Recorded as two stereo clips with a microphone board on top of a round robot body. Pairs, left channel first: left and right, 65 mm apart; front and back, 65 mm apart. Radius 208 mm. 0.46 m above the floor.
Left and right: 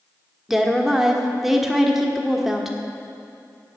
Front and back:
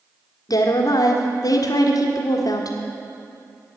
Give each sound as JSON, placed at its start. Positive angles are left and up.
{"t": 0.5, "sound": "a woman speaking", "azimuth_deg": -5, "distance_m": 1.6}